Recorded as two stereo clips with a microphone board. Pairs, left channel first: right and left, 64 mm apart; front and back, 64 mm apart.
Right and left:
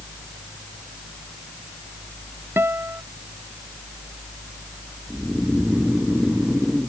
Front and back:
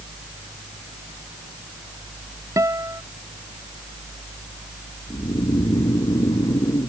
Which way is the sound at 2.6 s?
145° left.